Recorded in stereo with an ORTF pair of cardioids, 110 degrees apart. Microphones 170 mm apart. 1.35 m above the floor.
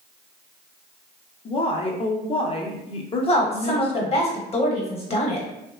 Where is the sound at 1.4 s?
35° left, 0.6 m.